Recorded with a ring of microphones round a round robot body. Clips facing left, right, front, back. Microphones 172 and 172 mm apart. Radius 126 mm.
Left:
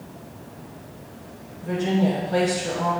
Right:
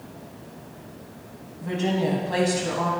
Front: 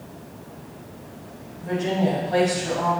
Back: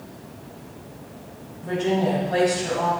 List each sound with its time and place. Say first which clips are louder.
1.6 s a woman speaking: left 2 dB, back 1 dB; 85° right, 3 m